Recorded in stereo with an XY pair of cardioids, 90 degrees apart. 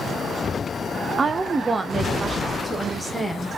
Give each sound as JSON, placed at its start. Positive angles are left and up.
{"t": 1.2, "sound": "a woman speaking", "azimuth_deg": -35, "distance_m": 0.6}